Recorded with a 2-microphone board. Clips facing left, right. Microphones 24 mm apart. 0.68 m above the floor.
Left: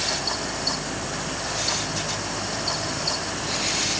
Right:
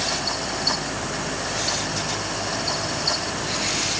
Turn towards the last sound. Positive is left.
No sound to turn to.